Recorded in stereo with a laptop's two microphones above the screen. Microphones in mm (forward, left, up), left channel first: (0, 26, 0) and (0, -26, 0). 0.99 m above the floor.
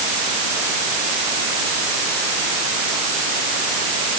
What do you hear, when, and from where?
Only background noise.